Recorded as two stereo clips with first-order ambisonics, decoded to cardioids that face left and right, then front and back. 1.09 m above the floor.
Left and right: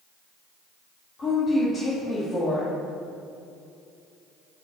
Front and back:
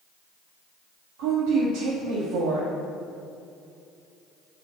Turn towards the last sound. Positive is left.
turn(degrees=160)